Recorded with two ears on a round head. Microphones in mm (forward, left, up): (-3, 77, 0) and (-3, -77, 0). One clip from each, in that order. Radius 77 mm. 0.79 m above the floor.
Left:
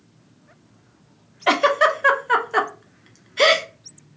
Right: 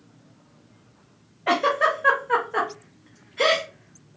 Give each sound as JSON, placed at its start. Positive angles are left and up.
{"t": 1.5, "sound": "a giggle", "side_deg": 70, "distance_m": 0.6}